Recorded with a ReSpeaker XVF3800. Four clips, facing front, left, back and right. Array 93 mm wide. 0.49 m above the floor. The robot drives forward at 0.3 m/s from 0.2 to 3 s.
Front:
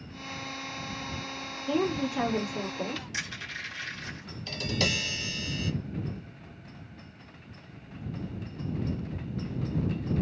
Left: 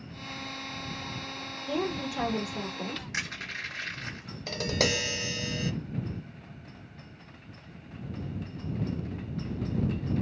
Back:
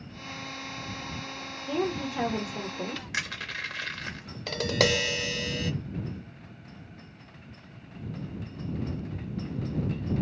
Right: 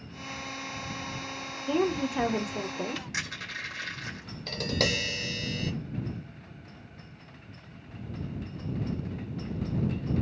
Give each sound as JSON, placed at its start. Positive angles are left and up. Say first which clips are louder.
{"t": 1.7, "sound": "a woman speaking", "louder": "right 4 dB, front 2 dB", "azimuth_deg": -70, "distance_m": 1.0}
{"t": 3.1, "sound": "crushing", "louder": "even, back 3 dB", "azimuth_deg": 180, "distance_m": 1.5}
{"t": 4.5, "sound": "tapping", "louder": "left 1 dB, back 6 dB", "azimuth_deg": 170, "distance_m": 0.6}